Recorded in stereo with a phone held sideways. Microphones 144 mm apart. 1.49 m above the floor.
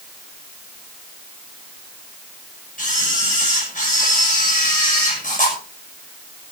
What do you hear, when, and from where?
2.8 s a camera shutter: 60° left (ahead or behind), 5.5 m